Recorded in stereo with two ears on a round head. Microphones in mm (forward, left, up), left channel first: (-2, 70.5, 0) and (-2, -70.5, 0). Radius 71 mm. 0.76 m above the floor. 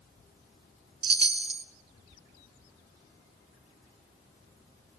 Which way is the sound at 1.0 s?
35° right (ahead or behind).